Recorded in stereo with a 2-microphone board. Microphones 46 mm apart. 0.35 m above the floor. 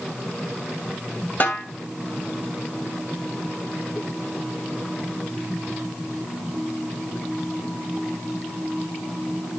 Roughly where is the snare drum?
Left.